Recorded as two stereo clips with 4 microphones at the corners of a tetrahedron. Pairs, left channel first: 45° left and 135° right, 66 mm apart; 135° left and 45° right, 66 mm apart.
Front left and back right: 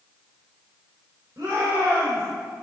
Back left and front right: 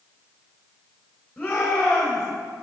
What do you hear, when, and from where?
1.4 s a shout: 155° right, 3 m